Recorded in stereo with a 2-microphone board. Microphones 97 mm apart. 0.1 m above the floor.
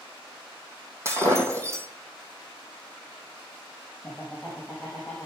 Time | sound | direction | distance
1.1 | breaking glass | 30° right (ahead or behind) | 2.5 m
4.0 | laughter | centre (ahead or behind) | 3.5 m